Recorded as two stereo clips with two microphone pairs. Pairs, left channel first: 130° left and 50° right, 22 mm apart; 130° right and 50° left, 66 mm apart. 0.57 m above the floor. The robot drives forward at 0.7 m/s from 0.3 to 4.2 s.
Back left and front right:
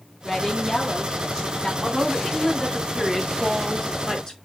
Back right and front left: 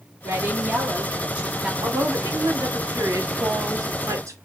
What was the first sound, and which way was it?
A woman speaking, 45° left.